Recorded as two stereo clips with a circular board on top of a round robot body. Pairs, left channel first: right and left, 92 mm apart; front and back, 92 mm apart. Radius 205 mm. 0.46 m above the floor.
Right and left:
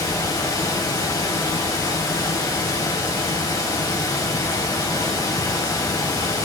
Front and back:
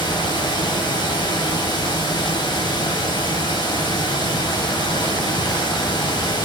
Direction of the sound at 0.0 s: 40° right.